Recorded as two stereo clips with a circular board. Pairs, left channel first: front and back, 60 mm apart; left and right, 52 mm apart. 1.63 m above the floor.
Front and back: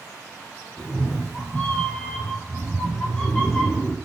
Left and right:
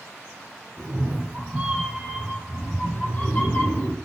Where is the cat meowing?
65° right, 1.3 m; by 4.0 s 75° left, 1.4 m.